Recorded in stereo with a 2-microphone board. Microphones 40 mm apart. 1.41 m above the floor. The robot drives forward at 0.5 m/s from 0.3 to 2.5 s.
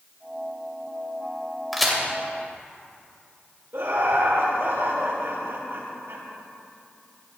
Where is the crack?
Centre (ahead or behind), 2.5 m.